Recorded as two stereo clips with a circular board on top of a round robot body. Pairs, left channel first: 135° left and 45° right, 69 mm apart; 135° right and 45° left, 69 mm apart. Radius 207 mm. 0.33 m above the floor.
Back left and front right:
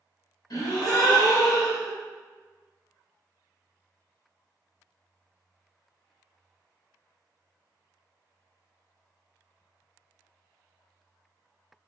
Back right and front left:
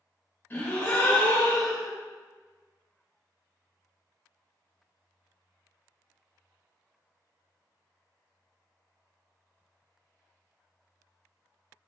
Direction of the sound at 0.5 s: 160° left.